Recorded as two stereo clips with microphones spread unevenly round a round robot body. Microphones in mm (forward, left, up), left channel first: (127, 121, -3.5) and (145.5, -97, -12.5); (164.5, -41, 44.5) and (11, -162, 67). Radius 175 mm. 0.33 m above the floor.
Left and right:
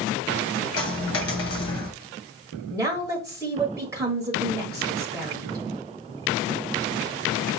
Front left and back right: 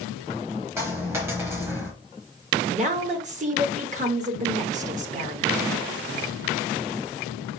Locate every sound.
0.8 s a dropped coin: 135° left, 0.6 m
2.7 s a woman speaking: 145° right, 1.1 m